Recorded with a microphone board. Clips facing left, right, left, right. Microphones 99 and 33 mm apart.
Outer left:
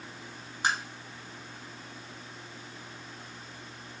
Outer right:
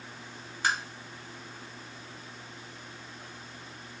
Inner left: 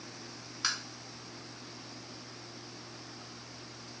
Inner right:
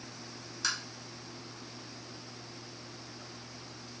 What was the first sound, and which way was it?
Tapping, 20° left (ahead or behind).